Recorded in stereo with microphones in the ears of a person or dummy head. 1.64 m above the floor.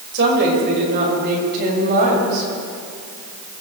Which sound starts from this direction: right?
A woman speaking, at 0.1 s.